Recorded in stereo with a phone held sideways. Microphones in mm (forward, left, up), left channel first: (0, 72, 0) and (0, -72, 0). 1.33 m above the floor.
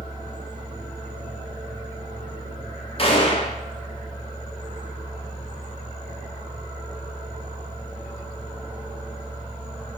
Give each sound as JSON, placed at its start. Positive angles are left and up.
{"t": 0.0, "sound": "a fan", "side_deg": 30, "distance_m": 1.2}
{"t": 3.0, "sound": "a gunshot", "side_deg": 40, "distance_m": 0.5}